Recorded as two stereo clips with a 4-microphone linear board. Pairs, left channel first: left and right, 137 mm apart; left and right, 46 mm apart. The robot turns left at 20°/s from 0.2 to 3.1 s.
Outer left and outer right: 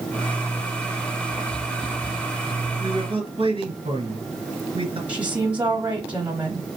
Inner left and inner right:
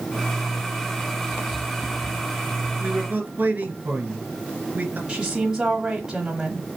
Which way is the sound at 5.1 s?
10° right (ahead or behind).